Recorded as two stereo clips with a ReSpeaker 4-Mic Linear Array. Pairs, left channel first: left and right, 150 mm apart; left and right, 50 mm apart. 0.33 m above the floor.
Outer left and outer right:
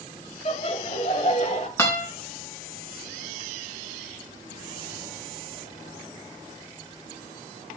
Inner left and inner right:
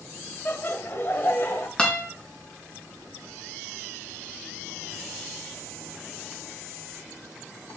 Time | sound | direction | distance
0.5 | laughter | 45° left (ahead or behind) | 1.5 m
1.8 | a guitar | 20° left (ahead or behind) | 4 m